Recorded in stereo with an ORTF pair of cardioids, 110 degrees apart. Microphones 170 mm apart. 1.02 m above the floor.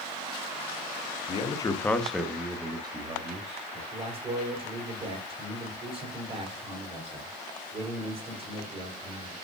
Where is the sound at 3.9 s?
35° right, 3.5 m.